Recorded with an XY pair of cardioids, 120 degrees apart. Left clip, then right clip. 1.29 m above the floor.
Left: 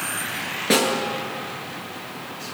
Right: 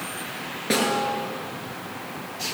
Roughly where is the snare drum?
Ahead.